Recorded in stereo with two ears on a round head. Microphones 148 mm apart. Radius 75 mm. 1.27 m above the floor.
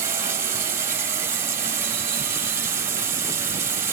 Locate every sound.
0.0 s running water: 15° right (ahead or behind), 3 m